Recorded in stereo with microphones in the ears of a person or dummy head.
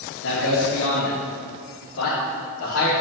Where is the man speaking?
65° left (ahead or behind), 1.8 m; by 2.9 s 70° left (ahead or behind), 4.5 m.